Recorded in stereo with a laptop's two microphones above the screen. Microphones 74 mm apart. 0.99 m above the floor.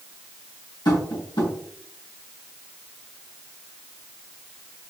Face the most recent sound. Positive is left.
turn(degrees=85)